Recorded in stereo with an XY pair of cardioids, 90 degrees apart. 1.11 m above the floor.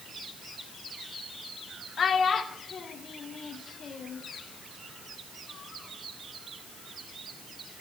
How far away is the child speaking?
About 0.7 m.